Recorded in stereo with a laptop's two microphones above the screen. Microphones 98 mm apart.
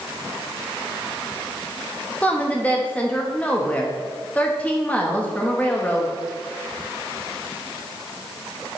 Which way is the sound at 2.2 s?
15° left (ahead or behind).